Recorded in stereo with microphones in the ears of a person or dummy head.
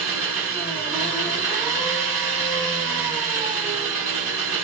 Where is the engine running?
5° right (ahead or behind), 1.4 m.